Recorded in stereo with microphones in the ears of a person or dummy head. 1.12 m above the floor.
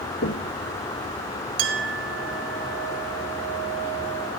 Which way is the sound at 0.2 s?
50° left (ahead or behind).